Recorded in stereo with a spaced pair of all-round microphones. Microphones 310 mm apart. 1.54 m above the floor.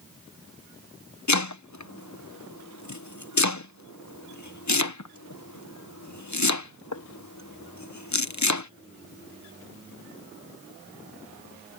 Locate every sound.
1.3 s chopping: 60° left (ahead or behind)